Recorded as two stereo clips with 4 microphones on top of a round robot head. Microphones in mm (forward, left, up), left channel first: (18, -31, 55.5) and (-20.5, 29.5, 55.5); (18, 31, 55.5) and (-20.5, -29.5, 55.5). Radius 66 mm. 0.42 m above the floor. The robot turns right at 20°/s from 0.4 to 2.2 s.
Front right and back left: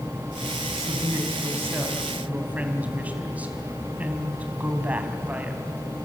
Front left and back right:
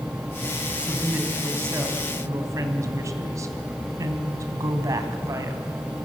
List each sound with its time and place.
0.8 s a woman speaking: 165° left, 3 m; by 5.6 s 170° right, 3 m